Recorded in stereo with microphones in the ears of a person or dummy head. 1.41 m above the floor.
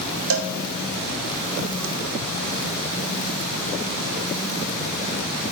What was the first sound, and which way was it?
A cowbell, 65° right (ahead or behind).